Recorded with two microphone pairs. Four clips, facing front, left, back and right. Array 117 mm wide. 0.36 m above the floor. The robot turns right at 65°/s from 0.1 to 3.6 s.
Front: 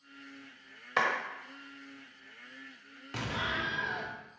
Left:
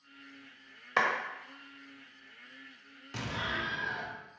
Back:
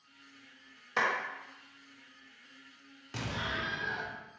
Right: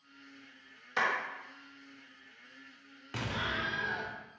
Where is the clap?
55° left, 0.9 m; by 1.1 s 65° left, 0.9 m.